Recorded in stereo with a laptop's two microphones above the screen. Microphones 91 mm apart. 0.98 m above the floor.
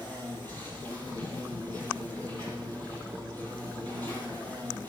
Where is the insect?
65° right (ahead or behind), 7 m.